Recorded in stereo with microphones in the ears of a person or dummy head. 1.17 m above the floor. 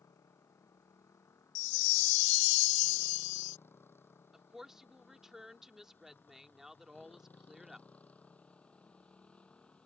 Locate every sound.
0.0 s a motorcycle: 15° left (ahead or behind); by 9.9 s 5° left (ahead or behind)
1.6 s a chime: 55° left (ahead or behind)
4.3 s a woman speaking: centre (ahead or behind)